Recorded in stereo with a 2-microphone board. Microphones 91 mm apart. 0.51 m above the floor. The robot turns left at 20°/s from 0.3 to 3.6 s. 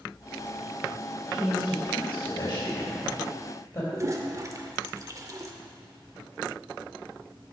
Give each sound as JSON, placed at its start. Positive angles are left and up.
{"t": 1.3, "sound": "a woman speaking", "side_deg": 70, "distance_m": 2.5}
{"t": 3.9, "sound": "a toilet flushing", "side_deg": -35, "distance_m": 0.6}